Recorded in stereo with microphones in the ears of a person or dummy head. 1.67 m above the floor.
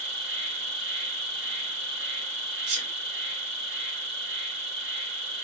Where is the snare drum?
I don't hear a snare drum.